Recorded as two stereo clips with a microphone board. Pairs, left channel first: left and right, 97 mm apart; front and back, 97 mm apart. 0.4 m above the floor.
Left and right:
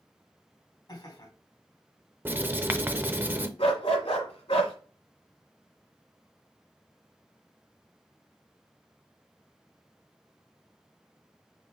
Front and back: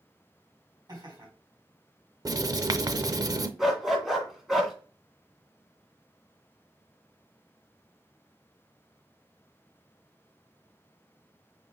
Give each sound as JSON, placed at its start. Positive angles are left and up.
{"t": 0.9, "sound": "laughter", "azimuth_deg": 130, "distance_m": 3.5}
{"t": 2.2, "sound": "writing", "azimuth_deg": -150, "distance_m": 0.5}
{"t": 3.6, "sound": "a dog barking", "azimuth_deg": 95, "distance_m": 1.8}